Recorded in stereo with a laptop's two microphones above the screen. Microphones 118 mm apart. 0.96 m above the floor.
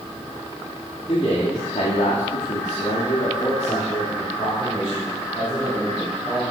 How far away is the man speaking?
About 2.5 m.